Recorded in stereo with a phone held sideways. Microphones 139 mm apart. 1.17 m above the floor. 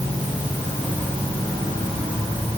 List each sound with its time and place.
Only background noise.